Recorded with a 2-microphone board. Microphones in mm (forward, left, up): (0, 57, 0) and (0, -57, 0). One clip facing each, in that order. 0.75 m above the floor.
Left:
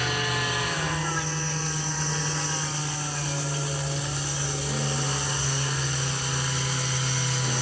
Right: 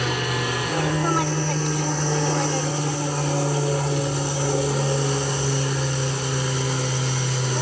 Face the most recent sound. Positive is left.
turn(degrees=-45)  # may be behind; listen again after turning